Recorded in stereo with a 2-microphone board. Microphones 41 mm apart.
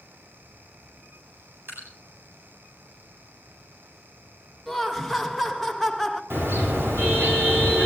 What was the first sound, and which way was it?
Dripping, 65° right (ahead or behind).